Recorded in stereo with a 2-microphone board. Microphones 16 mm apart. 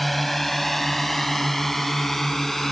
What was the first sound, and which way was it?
A drone, 5° left (ahead or behind).